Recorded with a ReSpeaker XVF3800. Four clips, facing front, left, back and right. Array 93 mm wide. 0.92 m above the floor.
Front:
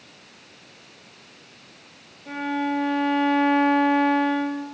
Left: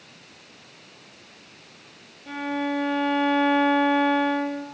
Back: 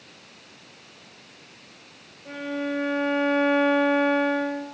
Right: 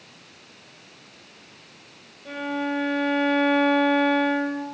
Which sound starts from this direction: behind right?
A violin, at 2.2 s.